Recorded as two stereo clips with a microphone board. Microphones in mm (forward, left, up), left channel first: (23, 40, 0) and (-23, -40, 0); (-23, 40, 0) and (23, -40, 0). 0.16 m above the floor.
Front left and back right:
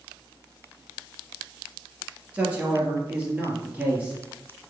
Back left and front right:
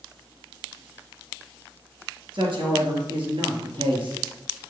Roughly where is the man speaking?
Ahead right.